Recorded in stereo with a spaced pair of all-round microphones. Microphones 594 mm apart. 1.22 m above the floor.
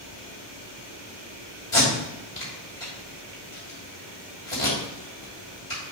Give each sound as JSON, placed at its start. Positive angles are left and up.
{"t": 1.7, "sound": "tape being pulled", "side_deg": 55, "distance_m": 3.0}